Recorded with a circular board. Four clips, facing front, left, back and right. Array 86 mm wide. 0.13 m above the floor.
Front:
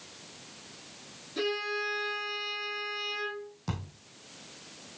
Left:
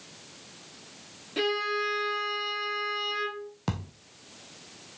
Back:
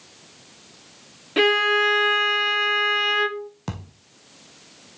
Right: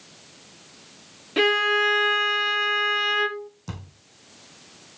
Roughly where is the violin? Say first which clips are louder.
Right 7 dB, back 13 dB; behind right.